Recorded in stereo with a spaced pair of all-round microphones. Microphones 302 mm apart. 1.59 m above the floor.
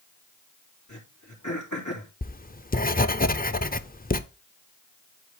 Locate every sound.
0.9 s throat clearing: 75° left (ahead or behind), 3 m
2.2 s writing: 30° left (ahead or behind), 0.5 m